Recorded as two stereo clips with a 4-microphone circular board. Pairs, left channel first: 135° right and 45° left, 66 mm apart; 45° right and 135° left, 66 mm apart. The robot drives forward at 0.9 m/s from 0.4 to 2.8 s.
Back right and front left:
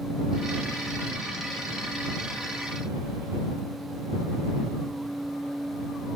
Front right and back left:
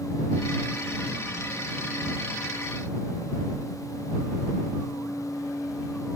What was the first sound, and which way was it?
Only background noise.